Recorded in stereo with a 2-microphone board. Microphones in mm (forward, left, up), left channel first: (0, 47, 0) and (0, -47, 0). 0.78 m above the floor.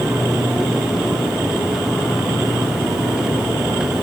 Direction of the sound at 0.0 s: 10° left (ahead or behind).